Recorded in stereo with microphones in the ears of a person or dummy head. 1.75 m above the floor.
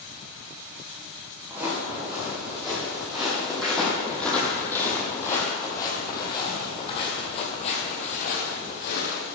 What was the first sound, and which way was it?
Footsteps, 10° right (ahead or behind).